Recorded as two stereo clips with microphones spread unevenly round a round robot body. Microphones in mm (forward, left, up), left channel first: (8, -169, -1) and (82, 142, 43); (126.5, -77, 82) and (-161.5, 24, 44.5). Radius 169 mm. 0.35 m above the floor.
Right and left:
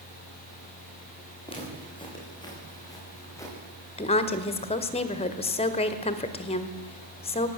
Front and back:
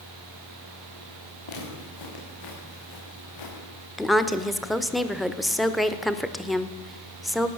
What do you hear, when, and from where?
1.5 s footsteps: 30° right, 9 m; by 3.6 s 20° right, 9 m
4.0 s a woman speaking: 125° right, 1.3 m